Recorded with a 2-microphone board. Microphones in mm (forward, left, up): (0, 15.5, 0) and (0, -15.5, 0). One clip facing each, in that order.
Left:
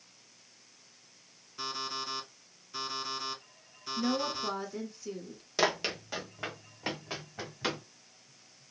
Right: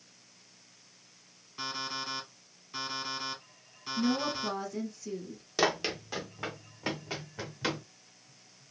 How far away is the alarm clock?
About 2 m.